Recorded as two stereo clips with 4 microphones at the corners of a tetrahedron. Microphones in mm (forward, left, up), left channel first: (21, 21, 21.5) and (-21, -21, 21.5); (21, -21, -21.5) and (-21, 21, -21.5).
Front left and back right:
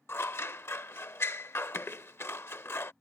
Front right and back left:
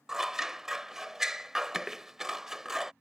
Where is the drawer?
I don't hear a drawer.